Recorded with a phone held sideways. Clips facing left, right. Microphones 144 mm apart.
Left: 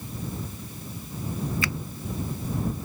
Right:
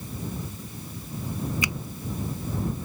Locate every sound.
1.6 s a finger snap: 20° right (ahead or behind)